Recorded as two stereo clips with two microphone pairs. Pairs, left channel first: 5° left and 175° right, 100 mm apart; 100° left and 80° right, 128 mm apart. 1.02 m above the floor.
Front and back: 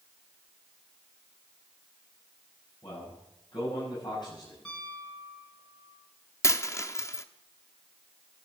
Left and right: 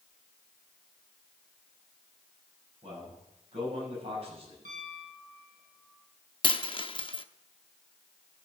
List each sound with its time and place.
2.8 s a man speaking: 40° right, 8.5 m
4.7 s a piano: 75° right, 7 m
6.4 s a dropped coin: 65° left, 0.8 m